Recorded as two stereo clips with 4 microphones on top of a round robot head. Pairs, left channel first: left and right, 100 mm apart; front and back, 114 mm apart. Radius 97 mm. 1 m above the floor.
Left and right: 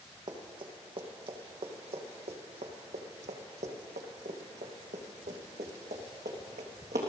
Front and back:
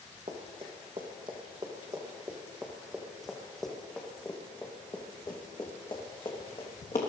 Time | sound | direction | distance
0.3 | running footsteps | 130° right | 3 m